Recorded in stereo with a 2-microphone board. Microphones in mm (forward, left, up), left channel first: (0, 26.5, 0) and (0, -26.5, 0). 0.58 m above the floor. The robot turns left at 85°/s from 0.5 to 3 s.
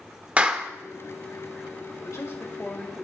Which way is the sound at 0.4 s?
25° right (ahead or behind).